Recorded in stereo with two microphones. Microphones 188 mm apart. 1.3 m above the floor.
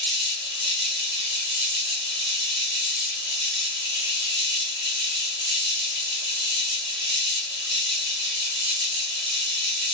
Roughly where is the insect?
Right.